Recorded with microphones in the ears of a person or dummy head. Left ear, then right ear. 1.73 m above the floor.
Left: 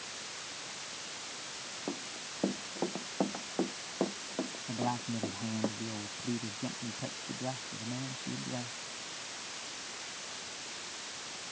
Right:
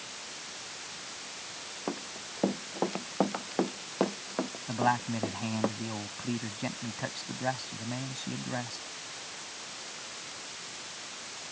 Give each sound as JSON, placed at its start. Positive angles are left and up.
{"t": 1.9, "sound": "running footsteps", "side_deg": -75}
{"t": 4.7, "sound": "a man speaking", "side_deg": -60}